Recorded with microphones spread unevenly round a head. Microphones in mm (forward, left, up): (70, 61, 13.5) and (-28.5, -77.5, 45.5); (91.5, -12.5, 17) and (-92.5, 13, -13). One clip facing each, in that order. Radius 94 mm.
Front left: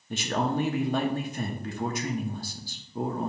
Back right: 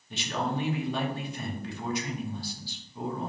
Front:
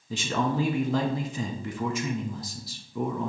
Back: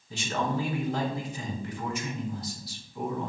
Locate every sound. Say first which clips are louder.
0.1 s a man speaking: front left 4 dB, front 3 dB; 20° left, 0.8 m